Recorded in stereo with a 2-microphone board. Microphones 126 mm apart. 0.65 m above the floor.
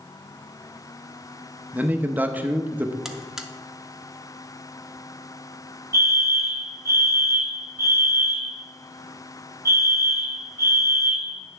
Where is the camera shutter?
I don't hear a camera shutter.